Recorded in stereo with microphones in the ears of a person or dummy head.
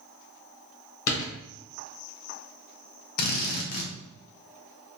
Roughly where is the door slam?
Left.